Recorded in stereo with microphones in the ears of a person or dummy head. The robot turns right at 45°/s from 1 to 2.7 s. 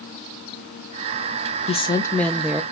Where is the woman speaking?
145° left, 0.6 m; by 2.6 s 175° right, 0.6 m.